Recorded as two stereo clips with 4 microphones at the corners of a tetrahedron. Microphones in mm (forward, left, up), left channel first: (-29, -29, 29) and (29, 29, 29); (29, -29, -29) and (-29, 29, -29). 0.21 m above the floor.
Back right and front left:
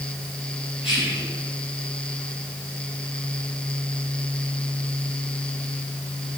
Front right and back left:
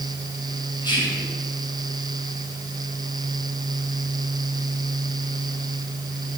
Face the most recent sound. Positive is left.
turn(degrees=-45)